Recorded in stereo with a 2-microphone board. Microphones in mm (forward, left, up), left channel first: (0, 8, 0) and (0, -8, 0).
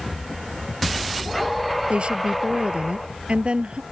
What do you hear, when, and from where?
1.9 s a woman speaking: 80° right